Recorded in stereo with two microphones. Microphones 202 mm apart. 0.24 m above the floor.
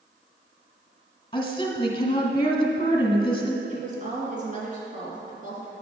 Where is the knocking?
I don't hear knocking.